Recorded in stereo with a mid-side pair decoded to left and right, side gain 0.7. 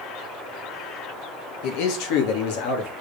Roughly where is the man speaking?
Left.